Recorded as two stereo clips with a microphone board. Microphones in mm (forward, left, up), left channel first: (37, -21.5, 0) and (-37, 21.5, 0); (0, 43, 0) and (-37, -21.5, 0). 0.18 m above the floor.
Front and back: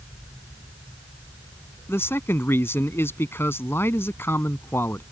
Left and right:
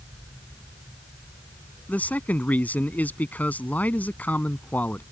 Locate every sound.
1.9 s a man speaking: 10° left